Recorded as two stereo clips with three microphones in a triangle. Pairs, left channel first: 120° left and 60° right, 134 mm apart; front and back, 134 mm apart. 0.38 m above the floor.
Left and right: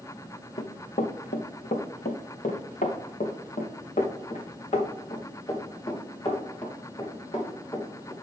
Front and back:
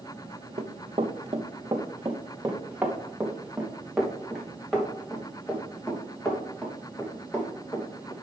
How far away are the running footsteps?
About 1.6 m.